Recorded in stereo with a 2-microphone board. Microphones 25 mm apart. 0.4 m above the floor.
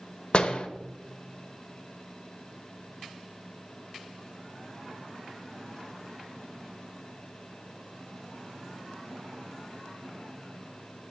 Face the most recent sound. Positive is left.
turn(degrees=45)  # may be behind; listen again after turning